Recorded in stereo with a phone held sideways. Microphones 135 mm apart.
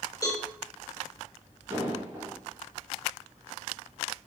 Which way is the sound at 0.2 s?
30° left (ahead or behind).